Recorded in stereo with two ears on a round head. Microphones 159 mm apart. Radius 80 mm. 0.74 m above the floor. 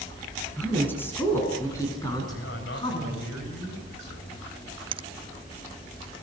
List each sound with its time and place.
0.6 s a woman speaking: 10° left (ahead or behind), 9 m; by 3.3 s 30° left (ahead or behind), 8 m
2.3 s a man speaking: 70° left (ahead or behind), 5 m
4.9 s a finger snap: 30° right (ahead or behind), 0.7 m